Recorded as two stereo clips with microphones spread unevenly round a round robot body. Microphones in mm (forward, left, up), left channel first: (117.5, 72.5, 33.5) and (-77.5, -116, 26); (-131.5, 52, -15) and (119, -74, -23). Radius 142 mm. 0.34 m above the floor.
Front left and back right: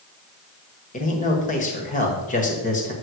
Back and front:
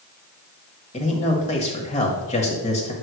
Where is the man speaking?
95° left, 1.4 m.